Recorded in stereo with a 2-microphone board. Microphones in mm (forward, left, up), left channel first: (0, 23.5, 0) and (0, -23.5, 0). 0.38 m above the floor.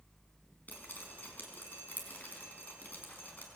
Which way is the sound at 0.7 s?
35° left (ahead or behind).